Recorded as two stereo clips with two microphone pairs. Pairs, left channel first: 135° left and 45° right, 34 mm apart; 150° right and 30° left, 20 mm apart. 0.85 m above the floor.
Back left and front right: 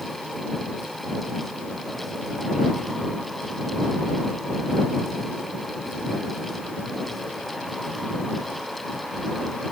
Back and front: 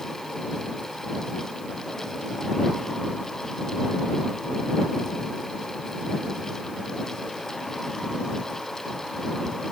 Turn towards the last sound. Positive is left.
No sound to turn to.